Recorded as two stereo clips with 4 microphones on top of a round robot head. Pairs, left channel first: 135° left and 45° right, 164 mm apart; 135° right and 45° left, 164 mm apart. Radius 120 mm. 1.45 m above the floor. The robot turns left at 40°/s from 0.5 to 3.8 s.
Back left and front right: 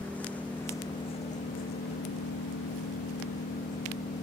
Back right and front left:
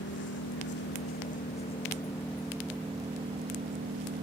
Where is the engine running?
145° right; by 4.2 s 85° left.